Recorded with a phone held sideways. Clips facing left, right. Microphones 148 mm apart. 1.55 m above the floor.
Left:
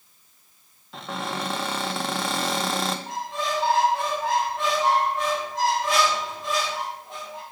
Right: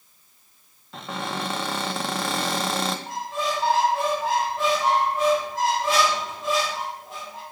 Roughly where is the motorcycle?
I don't hear a motorcycle.